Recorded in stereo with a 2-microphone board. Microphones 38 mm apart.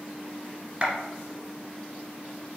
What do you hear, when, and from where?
0.8 s a clap: 25° right (ahead or behind), 1.1 m